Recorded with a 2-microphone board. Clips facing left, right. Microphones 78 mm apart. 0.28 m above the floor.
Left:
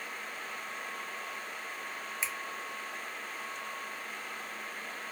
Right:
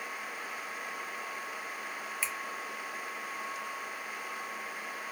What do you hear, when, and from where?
2.2 s a finger snap: 20° left (ahead or behind), 0.7 m